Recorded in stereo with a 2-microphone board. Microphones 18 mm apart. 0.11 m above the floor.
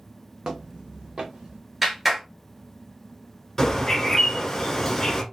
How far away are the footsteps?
About 0.6 m.